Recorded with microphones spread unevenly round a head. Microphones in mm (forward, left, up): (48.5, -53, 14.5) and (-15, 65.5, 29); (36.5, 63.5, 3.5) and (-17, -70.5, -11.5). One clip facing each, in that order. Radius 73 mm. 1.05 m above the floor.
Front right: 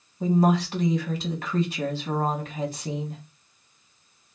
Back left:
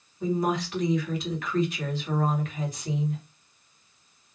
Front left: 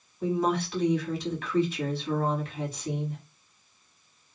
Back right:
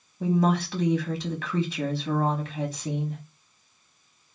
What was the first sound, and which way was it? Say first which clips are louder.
A woman speaking: front right 5 dB, back right 3 dB; 120° right.